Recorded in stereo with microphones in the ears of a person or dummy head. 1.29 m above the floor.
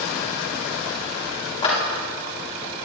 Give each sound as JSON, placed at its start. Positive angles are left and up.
{"t": 1.6, "sound": "a clap", "side_deg": 30, "distance_m": 2.0}